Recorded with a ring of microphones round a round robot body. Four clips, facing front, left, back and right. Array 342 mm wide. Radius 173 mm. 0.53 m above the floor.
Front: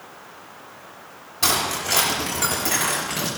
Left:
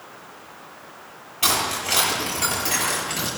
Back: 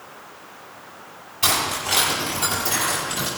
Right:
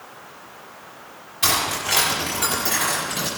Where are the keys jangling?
20° left, 7 m; by 3.3 s 5° left, 7 m.